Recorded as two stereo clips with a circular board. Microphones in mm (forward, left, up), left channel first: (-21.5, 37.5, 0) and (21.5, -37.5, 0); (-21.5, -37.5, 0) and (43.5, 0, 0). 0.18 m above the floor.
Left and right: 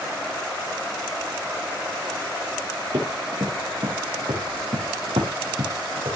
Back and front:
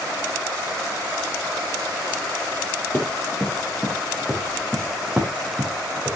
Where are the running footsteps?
85° right, 5 m; by 6.2 s 40° right, 5 m.